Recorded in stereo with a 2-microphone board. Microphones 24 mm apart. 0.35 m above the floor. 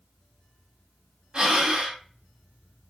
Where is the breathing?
40° right (ahead or behind), 1.5 m.